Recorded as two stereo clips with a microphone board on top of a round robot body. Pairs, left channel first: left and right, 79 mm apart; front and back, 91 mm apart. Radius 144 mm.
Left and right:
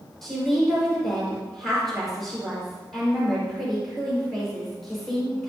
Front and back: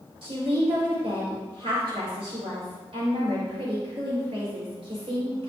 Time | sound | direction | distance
0.2 | a woman speaking | straight behind | 4 m